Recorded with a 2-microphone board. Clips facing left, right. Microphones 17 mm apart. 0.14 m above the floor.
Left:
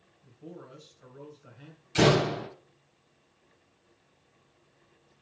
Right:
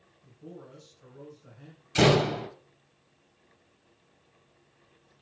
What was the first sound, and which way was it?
A man speaking, 30° left (ahead or behind).